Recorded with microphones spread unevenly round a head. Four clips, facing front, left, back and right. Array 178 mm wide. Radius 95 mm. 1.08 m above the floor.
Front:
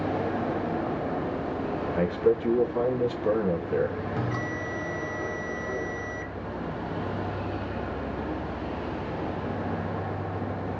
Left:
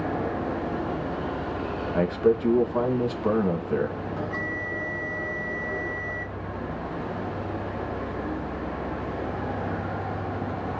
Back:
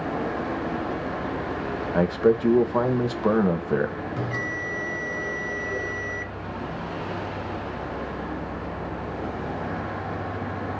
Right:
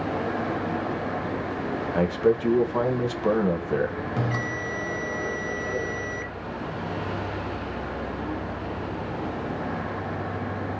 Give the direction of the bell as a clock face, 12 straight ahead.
3 o'clock.